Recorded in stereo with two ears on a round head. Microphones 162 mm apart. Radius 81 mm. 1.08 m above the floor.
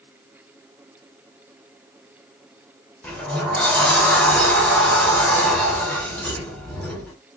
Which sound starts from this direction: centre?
A sliding door, at 3.0 s.